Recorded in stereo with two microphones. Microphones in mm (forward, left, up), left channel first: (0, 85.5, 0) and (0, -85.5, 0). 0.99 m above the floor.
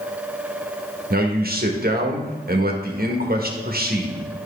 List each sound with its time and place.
1.1 s a man speaking: 60° right (ahead or behind), 1.4 m